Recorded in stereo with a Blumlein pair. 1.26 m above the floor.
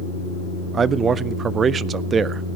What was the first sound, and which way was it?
A man speaking, 20° right.